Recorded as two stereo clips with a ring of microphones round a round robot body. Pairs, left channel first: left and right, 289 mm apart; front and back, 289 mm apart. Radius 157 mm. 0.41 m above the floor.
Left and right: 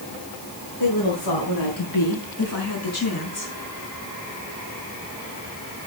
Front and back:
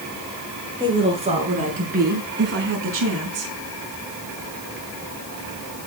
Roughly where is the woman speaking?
Left.